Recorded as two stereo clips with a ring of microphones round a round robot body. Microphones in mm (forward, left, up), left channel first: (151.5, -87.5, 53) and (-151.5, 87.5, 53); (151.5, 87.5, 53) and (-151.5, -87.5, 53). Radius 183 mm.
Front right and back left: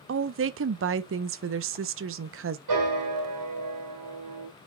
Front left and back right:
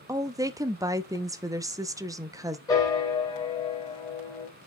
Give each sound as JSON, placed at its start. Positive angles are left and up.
{"t": 0.1, "sound": "a woman speaking", "azimuth_deg": 135, "distance_m": 0.6}
{"t": 2.7, "sound": "a piano", "azimuth_deg": 110, "distance_m": 3.0}